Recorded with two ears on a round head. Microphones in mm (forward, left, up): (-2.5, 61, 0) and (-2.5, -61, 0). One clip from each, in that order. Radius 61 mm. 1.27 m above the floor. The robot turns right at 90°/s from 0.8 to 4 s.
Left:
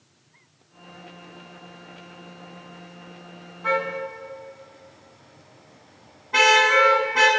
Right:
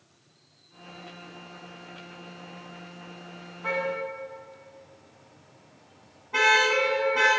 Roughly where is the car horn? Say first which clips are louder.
Left 4 dB; centre.